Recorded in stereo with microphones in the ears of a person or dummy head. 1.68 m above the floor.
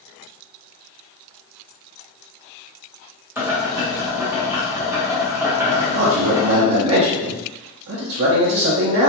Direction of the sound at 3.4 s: 10° right (ahead or behind).